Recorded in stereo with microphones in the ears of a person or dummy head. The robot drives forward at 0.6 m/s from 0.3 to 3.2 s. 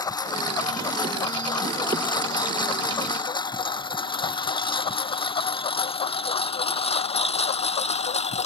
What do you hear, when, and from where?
0.0 s a lawn mower: 25° left (ahead or behind); by 8.5 s 40° left (ahead or behind)